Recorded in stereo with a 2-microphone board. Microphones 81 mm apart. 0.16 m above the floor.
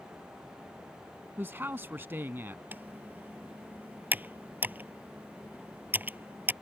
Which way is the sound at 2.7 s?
20° right (ahead or behind).